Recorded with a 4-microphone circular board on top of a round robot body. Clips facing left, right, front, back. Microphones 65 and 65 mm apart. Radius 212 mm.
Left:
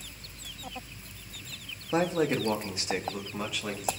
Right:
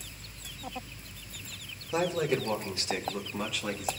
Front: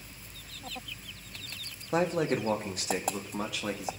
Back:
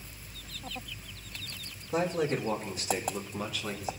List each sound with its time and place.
1.9 s a man speaking: 40° left, 2 m; by 3.9 s straight ahead, 2.5 m